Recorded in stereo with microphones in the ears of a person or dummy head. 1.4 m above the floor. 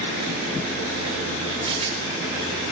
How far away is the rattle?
About 4.5 m.